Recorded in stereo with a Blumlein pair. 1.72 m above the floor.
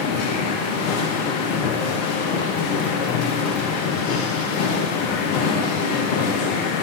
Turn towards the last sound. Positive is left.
turn(degrees=40)